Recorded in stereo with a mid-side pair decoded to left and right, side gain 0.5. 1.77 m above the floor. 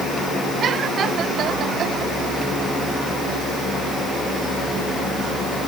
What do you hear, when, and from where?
Only background noise.